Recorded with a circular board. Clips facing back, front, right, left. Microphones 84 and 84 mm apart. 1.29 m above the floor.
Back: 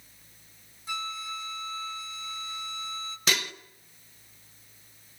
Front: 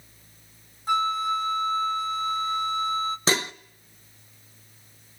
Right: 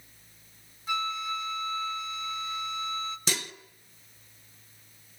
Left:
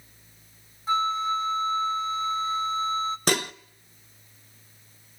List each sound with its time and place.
0.9 s a flute: 35° left, 0.7 m
3.3 s dishes clattering: 60° left, 0.8 m